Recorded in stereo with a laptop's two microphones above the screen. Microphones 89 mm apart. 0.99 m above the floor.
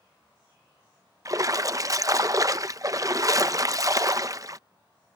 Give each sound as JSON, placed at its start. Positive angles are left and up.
{"t": 1.2, "sound": "a splash", "side_deg": -40}